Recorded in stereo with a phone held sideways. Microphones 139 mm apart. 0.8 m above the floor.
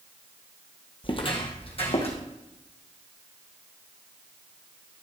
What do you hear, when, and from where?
1.0 s footsteps: 35° left (ahead or behind), 1.4 m; by 2.2 s 45° left (ahead or behind), 3 m